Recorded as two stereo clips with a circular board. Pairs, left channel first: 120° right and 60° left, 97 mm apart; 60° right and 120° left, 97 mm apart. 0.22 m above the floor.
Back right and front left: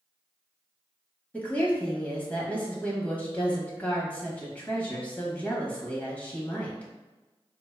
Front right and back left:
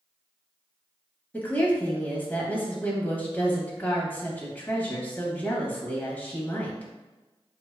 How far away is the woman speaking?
About 1.0 m.